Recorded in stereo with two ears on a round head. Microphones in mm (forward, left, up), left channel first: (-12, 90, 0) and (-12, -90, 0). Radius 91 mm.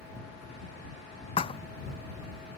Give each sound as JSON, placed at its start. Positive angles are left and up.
{"t": 1.4, "sound": "a thud", "side_deg": 30}